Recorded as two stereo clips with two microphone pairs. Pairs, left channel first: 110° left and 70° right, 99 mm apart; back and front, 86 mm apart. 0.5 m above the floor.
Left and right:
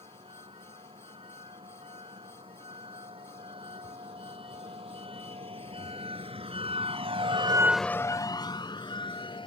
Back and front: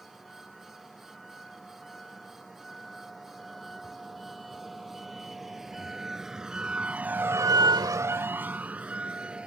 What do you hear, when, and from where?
0.0 s a vehicle: 90° right; by 9.5 s 80° left